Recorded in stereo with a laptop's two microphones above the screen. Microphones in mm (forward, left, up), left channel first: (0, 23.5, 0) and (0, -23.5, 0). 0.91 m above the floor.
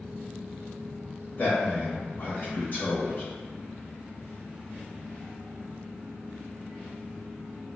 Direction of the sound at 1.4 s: 35° left (ahead or behind).